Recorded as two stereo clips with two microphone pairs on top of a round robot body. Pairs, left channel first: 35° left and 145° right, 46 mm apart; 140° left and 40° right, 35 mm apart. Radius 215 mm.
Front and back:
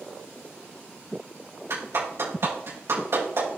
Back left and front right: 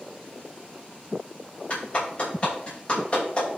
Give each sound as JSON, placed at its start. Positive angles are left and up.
{"t": 1.7, "sound": "a clap", "azimuth_deg": -170, "distance_m": 5.5}